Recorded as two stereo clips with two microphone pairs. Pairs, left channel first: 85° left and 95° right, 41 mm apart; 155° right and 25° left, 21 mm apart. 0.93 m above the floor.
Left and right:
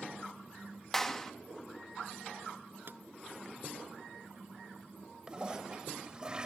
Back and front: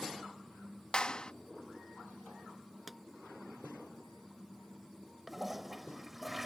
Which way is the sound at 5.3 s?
60° right.